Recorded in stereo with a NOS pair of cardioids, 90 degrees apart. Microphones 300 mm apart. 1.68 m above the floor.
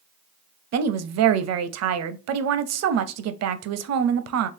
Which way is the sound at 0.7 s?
65° right.